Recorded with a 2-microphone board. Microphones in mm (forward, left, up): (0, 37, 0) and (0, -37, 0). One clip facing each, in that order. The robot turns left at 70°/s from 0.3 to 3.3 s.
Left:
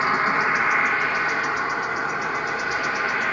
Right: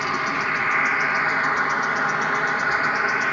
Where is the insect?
35° left, 0.7 m; by 3.3 s 175° right, 0.7 m.